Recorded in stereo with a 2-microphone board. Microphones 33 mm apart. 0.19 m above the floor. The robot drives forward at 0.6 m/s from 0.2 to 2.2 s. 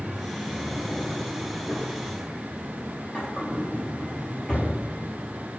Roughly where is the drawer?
Left.